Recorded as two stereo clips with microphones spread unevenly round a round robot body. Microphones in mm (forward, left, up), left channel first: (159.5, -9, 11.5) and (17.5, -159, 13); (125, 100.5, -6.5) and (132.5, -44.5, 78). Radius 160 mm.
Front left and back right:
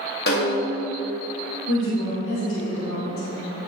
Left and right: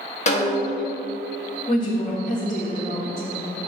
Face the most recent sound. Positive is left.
turn(degrees=65)